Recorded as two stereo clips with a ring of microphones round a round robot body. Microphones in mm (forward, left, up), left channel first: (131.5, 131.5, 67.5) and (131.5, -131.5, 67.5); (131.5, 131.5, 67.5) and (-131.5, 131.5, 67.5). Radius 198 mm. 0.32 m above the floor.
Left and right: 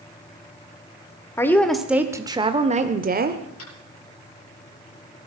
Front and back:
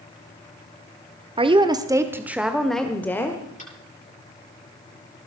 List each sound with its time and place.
1.4 s a woman speaking: 155° left, 1.1 m; by 3.4 s 75° right, 1.3 m
3.6 s tapping: 65° left, 8.5 m